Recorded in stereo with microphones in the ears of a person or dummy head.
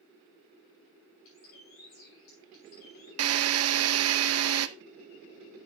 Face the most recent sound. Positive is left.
turn(degrees=-80)